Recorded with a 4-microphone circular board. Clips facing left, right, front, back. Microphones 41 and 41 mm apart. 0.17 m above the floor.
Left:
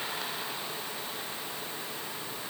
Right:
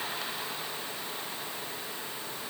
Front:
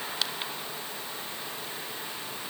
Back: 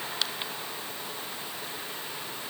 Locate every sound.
Only background noise.